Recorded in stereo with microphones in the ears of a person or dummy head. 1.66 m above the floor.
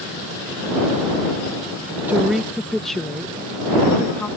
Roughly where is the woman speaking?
Centre.